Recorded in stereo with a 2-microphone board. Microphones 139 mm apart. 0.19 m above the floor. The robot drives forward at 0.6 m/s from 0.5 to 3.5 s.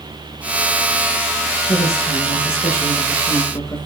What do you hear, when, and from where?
1.7 s a woman speaking: 25° left (ahead or behind), 7.5 m; by 3.9 s 20° left (ahead or behind), 8.5 m